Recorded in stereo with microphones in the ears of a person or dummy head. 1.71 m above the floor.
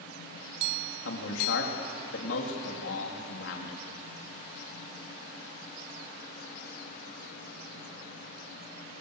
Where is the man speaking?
85° left, 4 m.